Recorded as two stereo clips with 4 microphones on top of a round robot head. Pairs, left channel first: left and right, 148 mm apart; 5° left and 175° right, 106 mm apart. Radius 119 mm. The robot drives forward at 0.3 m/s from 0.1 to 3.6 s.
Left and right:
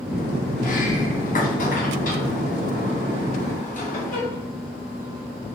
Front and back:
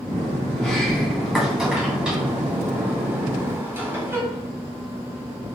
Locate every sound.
0.6 s a sliding door: 85° left, 1.8 m; by 4.5 s 115° left, 1.9 m